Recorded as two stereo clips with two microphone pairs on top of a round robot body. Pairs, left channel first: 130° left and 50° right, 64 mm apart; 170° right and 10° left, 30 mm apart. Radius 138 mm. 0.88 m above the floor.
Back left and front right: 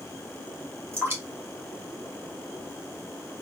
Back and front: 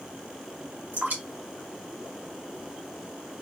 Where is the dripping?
5° left, 1.8 m.